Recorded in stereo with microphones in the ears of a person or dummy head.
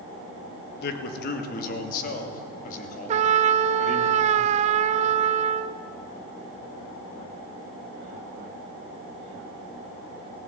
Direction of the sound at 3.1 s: 35° right (ahead or behind).